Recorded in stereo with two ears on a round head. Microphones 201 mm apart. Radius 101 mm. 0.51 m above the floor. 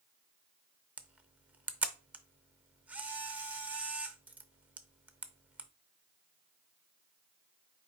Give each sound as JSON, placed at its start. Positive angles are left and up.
{"t": 1.0, "sound": "a camera shutter", "side_deg": -5, "distance_m": 0.5}